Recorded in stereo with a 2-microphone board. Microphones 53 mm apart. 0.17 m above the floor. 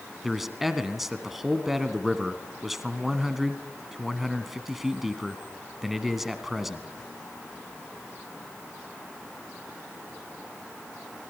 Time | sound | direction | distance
0.2 | a man speaking | 5° right (ahead or behind) | 1.8 m